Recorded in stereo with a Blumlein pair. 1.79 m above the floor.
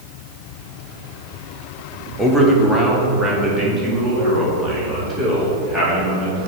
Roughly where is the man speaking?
Ahead.